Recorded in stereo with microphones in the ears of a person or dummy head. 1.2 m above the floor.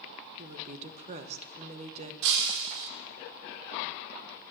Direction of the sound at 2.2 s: 65° right (ahead or behind).